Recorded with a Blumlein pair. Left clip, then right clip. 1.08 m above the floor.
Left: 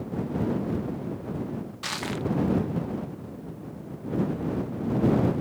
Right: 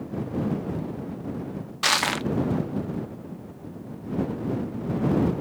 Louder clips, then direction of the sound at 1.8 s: Right 9 dB; 30° right.